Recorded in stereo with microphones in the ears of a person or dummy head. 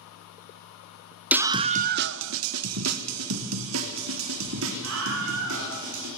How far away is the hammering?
I don't hear hammering.